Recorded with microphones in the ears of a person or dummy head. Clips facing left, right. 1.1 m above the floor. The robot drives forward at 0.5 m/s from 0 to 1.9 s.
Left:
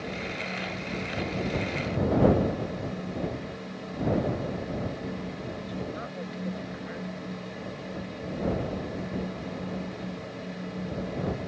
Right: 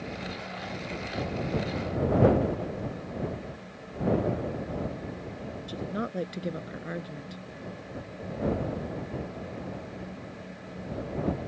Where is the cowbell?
I don't hear a cowbell.